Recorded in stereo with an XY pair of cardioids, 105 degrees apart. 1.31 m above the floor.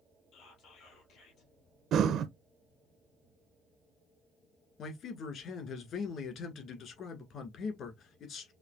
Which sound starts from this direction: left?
Whispering, at 0.3 s.